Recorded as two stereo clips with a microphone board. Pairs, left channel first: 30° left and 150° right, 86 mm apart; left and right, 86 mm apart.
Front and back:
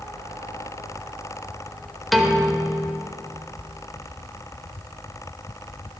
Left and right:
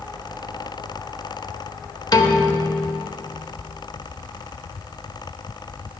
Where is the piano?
120° left, 1.0 m.